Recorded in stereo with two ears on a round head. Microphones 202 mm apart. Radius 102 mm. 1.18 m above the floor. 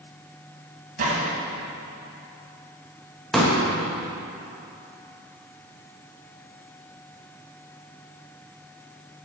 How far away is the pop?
About 1.3 m.